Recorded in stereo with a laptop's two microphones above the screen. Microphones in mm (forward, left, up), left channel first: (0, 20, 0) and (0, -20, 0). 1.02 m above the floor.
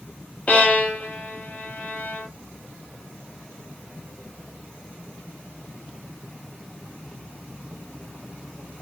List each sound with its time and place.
0.5 s a violin: 35° left (ahead or behind), 1.3 m